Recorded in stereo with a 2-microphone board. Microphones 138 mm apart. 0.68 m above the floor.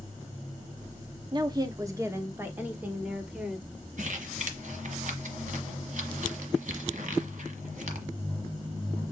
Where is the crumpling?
65° right (ahead or behind), 1.3 m.